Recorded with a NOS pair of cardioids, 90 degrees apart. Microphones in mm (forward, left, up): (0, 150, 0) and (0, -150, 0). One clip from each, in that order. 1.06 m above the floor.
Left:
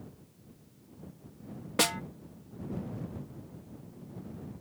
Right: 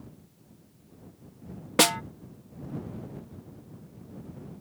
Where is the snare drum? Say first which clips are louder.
Right 6 dB; 25° right.